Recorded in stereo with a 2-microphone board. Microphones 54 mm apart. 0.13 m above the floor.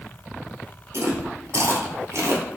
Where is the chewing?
60° right (ahead or behind), 1.1 m.